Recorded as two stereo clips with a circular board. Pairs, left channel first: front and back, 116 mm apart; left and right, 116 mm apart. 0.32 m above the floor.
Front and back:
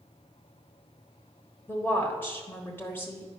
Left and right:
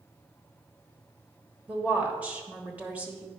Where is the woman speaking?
35° right, 1.2 m.